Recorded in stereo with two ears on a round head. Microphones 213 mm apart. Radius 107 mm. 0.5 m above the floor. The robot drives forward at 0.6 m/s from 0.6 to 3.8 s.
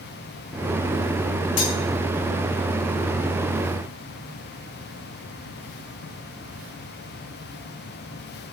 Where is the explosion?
I don't hear an explosion.